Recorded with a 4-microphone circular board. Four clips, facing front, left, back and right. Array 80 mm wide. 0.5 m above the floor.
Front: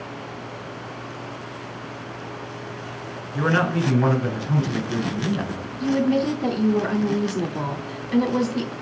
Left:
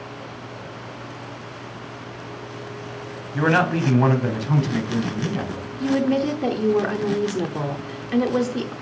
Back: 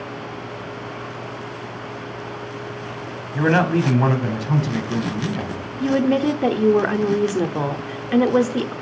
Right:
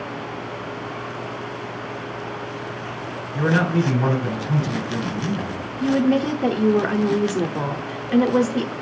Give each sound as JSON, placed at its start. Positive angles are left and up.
{"t": 3.3, "sound": "a man speaking", "azimuth_deg": 140, "distance_m": 3.5}
{"t": 5.8, "sound": "a woman speaking", "azimuth_deg": -170, "distance_m": 1.1}